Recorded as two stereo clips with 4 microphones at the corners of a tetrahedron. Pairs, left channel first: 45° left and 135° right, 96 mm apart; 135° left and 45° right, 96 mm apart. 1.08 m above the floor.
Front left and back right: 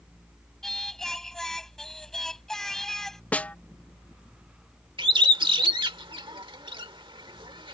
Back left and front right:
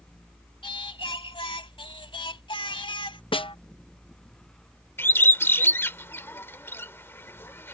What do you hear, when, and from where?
0.6 s singing: 130° left
3.3 s a snare drum: 120° left
5.0 s a bird: 160° right